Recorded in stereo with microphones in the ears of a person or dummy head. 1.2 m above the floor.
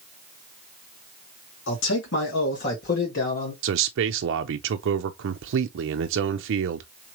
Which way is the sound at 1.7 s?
75° left (ahead or behind).